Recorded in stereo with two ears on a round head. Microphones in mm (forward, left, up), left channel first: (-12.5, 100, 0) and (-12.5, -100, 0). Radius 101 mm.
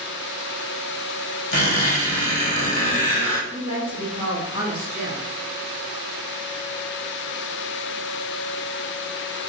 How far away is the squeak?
About 1.7 m.